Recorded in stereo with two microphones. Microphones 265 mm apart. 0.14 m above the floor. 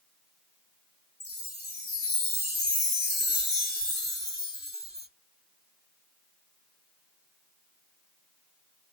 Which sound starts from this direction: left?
A chime, at 1.2 s.